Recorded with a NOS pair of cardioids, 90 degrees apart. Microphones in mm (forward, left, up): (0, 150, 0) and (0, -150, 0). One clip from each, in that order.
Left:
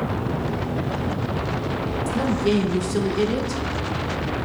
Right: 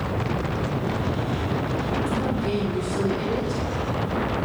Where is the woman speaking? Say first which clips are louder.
Left 3 dB; 70° left, 2.0 m.